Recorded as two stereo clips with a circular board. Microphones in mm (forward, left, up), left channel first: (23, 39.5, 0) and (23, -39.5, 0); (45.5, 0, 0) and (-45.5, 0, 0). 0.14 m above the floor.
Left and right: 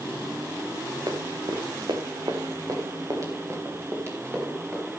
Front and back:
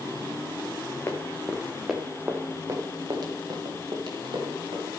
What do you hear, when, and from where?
1.1 s running footsteps: 60° right, 2.0 m; by 4.9 s 150° right, 5 m